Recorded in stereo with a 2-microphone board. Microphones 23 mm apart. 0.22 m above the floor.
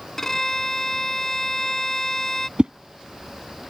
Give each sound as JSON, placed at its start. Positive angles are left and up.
{"t": 0.2, "sound": "a violin", "side_deg": 20}
{"t": 2.6, "sound": "a whoosh", "side_deg": -50}